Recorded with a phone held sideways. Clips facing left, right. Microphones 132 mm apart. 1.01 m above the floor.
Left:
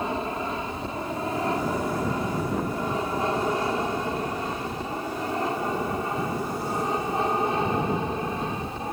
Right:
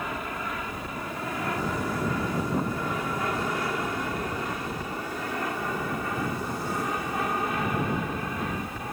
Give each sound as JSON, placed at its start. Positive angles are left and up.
{"t": 0.0, "sound": "an aircraft", "side_deg": 30}